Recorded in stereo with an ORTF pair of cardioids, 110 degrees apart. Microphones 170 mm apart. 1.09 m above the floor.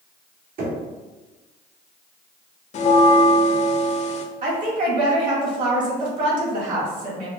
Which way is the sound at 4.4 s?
55° right.